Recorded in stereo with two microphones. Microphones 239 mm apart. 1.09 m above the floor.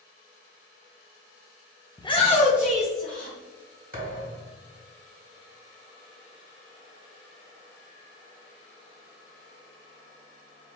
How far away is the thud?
About 1.7 m.